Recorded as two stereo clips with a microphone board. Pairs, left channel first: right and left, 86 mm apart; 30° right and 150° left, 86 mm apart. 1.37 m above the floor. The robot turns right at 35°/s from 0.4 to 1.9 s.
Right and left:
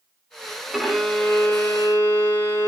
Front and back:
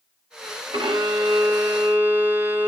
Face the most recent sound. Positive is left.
turn(degrees=-145)